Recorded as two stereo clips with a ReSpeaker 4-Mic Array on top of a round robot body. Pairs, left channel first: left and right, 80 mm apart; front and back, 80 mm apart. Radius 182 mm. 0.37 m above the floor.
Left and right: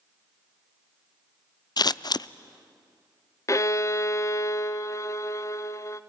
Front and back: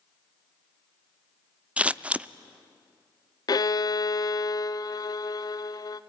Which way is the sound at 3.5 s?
40° left.